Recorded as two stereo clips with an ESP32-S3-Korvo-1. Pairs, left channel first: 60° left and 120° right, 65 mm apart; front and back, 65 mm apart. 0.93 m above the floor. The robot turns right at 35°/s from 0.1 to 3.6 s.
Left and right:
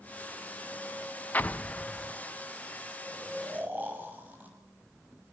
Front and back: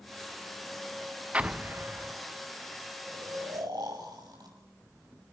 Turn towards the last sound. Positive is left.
turn(degrees=175)